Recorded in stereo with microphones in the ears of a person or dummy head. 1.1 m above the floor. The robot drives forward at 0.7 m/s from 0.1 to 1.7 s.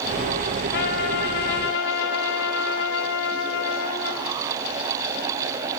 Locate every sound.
0.7 s a trumpet: 60° left (ahead or behind), 4.5 m; by 4.3 s 65° left (ahead or behind), 4 m